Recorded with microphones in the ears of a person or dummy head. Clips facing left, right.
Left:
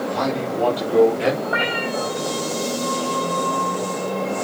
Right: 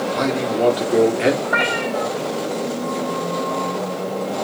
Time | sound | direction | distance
0.1 | a man speaking | 35° right (ahead or behind) | 3.5 m
1.4 | a cat meowing | 30° right (ahead or behind) | 5 m